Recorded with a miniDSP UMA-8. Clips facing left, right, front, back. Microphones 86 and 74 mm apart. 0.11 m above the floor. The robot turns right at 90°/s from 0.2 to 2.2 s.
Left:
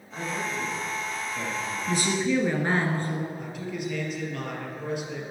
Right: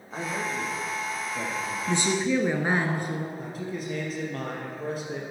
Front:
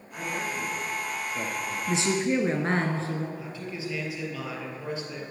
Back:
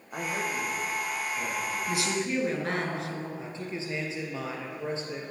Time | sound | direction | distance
0.1 | a man speaking | 145° right | 5 m
1.9 | a woman speaking | 55° right | 1.3 m
3.4 | a man speaking | 130° right | 3 m